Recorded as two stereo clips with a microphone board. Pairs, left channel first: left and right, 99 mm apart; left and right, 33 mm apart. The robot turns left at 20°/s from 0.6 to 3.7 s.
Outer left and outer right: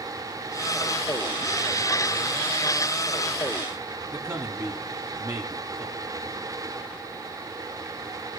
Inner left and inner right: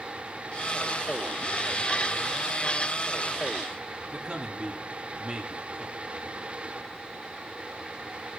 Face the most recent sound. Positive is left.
turn(degrees=-25)  # may be behind; listen again after turning